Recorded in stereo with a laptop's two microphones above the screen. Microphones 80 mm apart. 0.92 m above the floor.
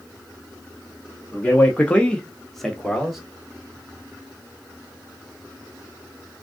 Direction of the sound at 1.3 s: 20° left (ahead or behind).